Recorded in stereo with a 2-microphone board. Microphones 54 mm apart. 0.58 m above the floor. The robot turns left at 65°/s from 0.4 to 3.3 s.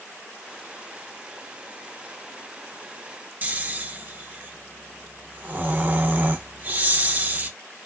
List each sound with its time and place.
3.4 s snoring: 30° right (ahead or behind), 0.5 m